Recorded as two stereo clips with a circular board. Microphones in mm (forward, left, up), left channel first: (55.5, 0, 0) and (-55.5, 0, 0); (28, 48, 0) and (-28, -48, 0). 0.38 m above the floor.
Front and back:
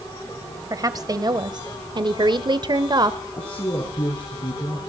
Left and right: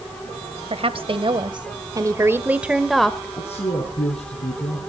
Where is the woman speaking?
130° right, 1.7 m; by 3.3 s 140° left, 1.3 m.